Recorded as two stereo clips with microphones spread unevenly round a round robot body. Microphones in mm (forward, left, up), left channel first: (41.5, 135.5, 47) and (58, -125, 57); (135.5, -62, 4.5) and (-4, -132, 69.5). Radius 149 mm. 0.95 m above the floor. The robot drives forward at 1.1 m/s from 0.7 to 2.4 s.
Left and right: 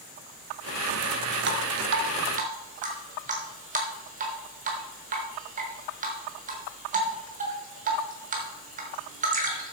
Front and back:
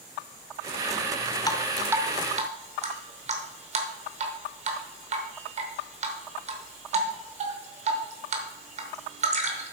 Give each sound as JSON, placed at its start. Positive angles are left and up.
{"t": 1.5, "sound": "dripping", "azimuth_deg": -55, "distance_m": 0.7}